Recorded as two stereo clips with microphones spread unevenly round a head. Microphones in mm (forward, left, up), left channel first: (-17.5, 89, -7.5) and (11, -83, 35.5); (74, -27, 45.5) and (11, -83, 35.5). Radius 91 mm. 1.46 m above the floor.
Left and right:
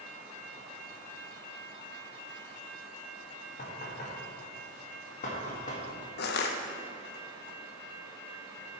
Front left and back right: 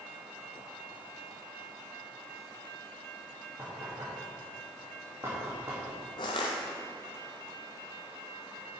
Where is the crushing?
65° left, 0.7 m.